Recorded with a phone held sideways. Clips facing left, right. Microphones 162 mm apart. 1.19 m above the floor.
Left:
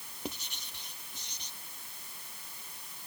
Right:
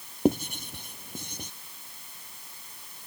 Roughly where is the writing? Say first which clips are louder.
Right 18 dB; right.